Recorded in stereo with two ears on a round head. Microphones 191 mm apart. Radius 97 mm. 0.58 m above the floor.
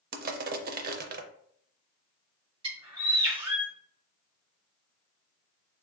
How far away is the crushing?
About 0.5 m.